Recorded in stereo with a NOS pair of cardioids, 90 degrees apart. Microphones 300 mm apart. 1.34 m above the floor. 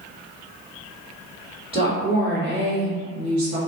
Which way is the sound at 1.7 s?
20° right.